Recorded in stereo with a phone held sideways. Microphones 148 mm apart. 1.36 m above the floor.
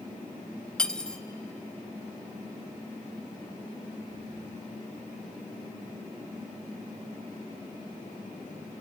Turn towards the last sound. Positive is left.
turn(degrees=5)  # may be behind; listen again after turning